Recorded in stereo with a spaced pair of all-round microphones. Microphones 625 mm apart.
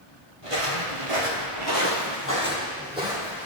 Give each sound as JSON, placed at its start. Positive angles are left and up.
{"t": 0.4, "sound": "footsteps", "side_deg": -55, "distance_m": 2.0}